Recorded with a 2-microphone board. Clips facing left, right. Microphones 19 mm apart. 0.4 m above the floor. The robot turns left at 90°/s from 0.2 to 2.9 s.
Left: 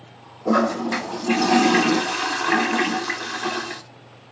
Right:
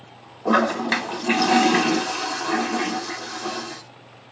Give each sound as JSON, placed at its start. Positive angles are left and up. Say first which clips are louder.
{"t": 0.5, "sound": "a toilet flushing", "louder": "right 1 dB", "azimuth_deg": -70, "distance_m": 0.6}